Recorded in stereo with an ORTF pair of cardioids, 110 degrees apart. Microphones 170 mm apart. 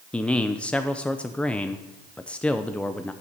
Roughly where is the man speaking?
Ahead.